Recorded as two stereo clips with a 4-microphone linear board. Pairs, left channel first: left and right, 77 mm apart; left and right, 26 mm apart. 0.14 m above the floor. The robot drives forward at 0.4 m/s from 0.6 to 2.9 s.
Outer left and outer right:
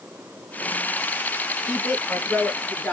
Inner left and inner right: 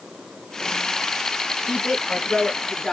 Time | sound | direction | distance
1.6 | a woman speaking | 10° left (ahead or behind) | 1.5 m